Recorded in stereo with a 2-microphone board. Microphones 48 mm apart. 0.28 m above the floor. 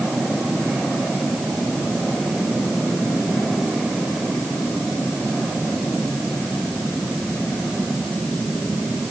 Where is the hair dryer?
I don't hear a hair dryer.